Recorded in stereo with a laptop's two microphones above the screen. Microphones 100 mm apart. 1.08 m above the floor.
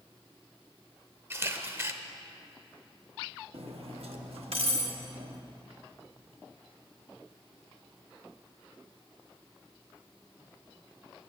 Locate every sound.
1.3 s a camera shutter: 25° right (ahead or behind), 0.8 m
3.5 s cutlery clinking: 75° right (ahead or behind), 1.0 m